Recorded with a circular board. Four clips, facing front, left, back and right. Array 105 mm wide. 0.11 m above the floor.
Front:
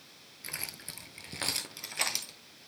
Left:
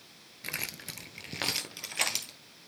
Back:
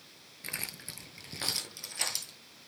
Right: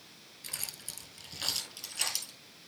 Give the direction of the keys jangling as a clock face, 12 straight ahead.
9 o'clock.